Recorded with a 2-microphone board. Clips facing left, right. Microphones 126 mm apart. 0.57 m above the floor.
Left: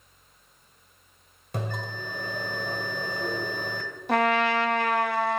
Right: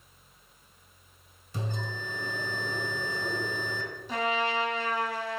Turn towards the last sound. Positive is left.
turn(degrees=65)  # may be behind; listen again after turning